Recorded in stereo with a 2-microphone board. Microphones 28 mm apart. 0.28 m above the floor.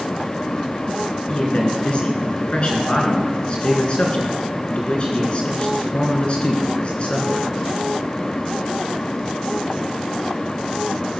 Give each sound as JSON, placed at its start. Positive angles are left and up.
{"t": 1.3, "sound": "a man speaking", "side_deg": 40, "distance_m": 3.5}